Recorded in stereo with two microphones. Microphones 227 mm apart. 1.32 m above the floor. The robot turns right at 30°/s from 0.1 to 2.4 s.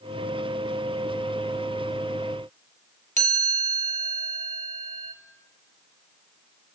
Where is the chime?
35° right (ahead or behind), 2 m.